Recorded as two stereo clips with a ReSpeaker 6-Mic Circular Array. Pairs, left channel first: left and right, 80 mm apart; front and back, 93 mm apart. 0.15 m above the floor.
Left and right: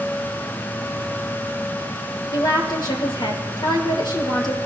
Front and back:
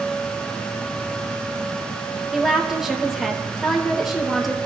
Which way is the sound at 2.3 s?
95° left.